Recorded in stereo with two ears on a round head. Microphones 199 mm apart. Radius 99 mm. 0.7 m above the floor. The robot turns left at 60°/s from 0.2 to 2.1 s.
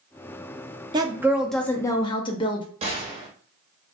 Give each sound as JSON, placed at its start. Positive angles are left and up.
{"t": 0.9, "sound": "a woman speaking", "azimuth_deg": -150, "distance_m": 0.5}
{"t": 2.8, "sound": "a gunshot", "side_deg": -25, "distance_m": 0.8}